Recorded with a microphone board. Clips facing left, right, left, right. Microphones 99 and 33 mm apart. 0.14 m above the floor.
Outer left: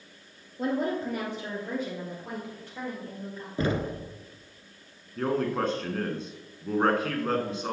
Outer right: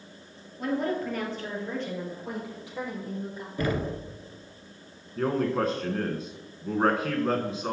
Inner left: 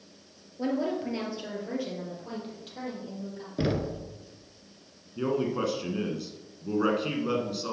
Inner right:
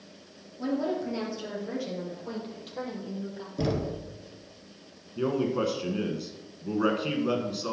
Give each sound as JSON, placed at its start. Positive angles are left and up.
{"t": 0.6, "sound": "a woman speaking", "side_deg": 30, "distance_m": 3.0}
{"t": 3.6, "sound": "knocking", "side_deg": 25, "distance_m": 1.1}
{"t": 5.2, "sound": "a man speaking", "side_deg": 0, "distance_m": 1.2}